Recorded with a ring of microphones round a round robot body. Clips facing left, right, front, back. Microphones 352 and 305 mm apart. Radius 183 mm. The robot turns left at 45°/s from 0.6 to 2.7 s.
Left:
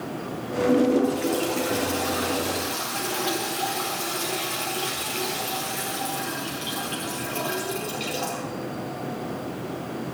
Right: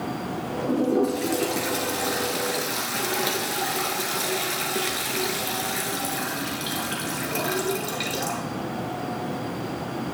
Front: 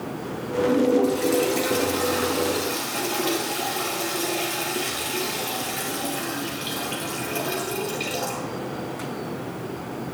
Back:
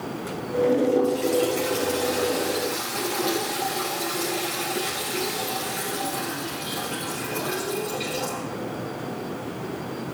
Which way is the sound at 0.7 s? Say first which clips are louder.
Left 2 dB, front 2 dB; 5° right.